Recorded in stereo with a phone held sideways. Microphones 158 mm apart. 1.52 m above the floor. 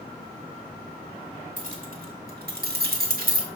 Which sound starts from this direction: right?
Keys jangling, at 1.6 s.